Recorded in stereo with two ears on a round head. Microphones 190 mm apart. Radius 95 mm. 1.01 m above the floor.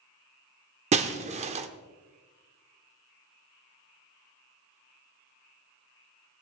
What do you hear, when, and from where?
0.9 s breaking glass: 30° right (ahead or behind), 0.7 m